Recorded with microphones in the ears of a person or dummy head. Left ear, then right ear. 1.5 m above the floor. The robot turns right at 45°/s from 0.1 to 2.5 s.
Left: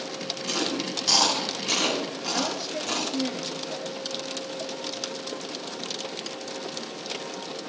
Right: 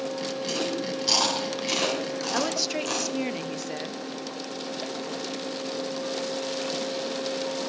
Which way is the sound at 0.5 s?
35° left (ahead or behind).